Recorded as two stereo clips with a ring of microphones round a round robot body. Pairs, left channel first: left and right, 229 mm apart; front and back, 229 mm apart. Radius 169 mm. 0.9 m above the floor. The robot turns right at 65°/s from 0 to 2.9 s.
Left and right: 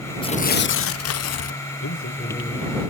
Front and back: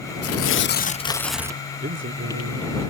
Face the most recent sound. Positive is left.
turn(degrees=-160)